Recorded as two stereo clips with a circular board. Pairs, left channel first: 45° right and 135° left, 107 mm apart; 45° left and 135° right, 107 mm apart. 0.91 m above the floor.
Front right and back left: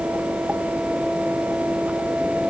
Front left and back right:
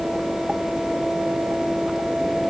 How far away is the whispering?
No whispering in this recording.